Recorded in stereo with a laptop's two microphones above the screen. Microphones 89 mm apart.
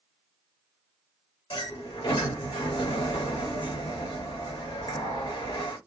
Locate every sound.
1.5 s a sliding door: 65° left (ahead or behind), 1.7 m